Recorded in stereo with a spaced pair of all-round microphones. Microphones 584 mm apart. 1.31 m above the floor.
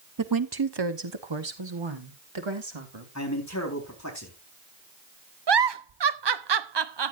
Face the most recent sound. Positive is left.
turn(degrees=-45)  # may be behind; listen again after turning